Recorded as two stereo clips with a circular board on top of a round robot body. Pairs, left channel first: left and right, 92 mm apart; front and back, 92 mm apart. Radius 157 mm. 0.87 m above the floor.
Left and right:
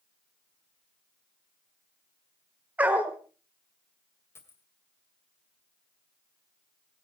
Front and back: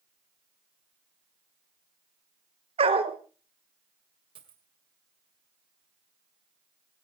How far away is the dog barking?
About 1.5 m.